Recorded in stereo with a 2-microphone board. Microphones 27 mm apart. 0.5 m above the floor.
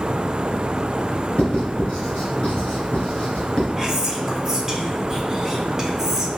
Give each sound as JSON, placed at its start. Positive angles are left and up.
{"t": 1.4, "sound": "writing", "side_deg": 50, "distance_m": 1.9}
{"t": 3.8, "sound": "whispering", "side_deg": -20, "distance_m": 0.7}